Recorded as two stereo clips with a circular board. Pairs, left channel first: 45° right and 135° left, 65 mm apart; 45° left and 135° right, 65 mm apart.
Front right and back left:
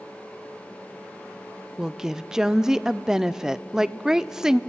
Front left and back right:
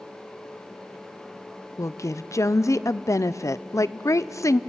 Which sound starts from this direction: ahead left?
A woman speaking, at 1.8 s.